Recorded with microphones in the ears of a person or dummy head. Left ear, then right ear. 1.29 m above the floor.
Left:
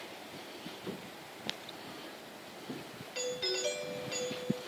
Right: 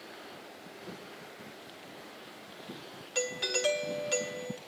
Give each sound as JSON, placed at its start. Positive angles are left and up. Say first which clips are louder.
{"t": 0.9, "sound": "footsteps", "louder": "left 1 dB", "side_deg": 30, "distance_m": 2.0}
{"t": 3.1, "sound": "a doorbell", "louder": "right 3 dB", "side_deg": -45, "distance_m": 2.0}